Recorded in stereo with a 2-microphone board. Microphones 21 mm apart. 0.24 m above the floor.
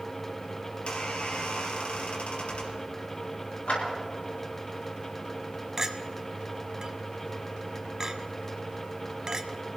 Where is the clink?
30° right (ahead or behind), 0.8 m.